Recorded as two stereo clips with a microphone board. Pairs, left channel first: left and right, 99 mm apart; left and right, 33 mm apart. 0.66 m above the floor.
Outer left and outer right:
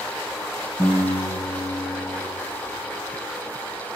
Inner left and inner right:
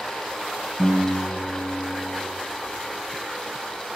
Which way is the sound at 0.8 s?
40° left (ahead or behind).